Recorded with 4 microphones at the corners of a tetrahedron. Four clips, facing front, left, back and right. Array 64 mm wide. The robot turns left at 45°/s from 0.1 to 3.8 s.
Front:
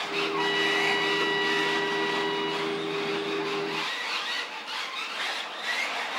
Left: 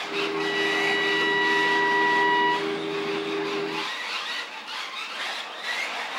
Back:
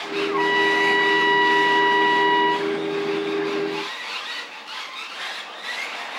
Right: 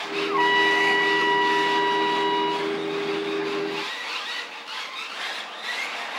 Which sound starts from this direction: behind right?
A trumpet, at 0.3 s.